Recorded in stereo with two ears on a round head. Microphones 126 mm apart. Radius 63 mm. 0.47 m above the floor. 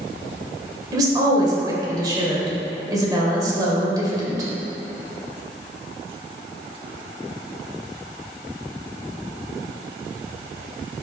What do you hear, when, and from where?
0.9 s a woman speaking: 30° right (ahead or behind), 2 m